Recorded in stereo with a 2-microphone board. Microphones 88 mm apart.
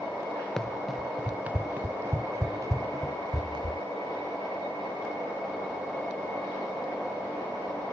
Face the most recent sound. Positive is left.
turn(degrees=-55)  # may be behind; listen again after turning